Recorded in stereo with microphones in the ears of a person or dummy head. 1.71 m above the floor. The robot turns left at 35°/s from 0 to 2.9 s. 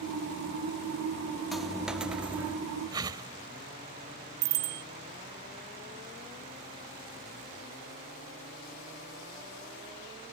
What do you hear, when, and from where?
1.5 s a dropped coin: centre (ahead or behind); by 2.6 s 10° right (ahead or behind)
2.9 s a whoosh: 20° right (ahead or behind)
4.4 s a bicycle bell: 55° right (ahead or behind)